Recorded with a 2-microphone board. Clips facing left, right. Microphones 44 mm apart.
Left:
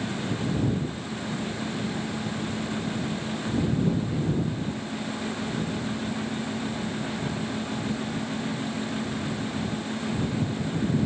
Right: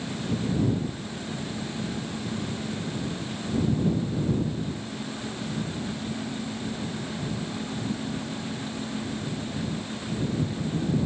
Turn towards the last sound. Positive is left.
No sound to turn to.